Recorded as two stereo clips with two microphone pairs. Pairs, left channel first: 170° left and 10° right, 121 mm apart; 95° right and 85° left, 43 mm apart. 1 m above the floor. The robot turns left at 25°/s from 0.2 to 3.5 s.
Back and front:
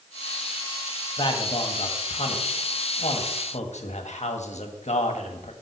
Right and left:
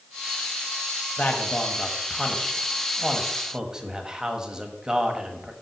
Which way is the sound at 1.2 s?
145° right.